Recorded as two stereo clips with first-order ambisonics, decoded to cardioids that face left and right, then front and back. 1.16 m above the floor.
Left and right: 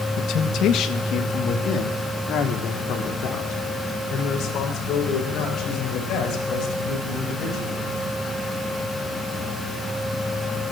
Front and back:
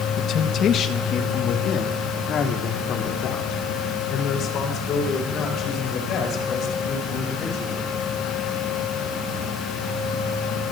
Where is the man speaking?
50° left, 1.1 m.